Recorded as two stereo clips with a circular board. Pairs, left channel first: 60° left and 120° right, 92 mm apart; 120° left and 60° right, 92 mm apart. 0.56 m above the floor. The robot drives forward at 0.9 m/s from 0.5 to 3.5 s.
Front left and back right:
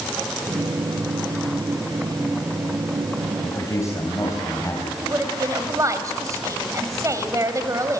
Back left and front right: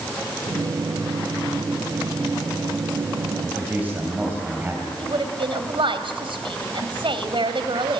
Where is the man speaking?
10° left, 3.5 m.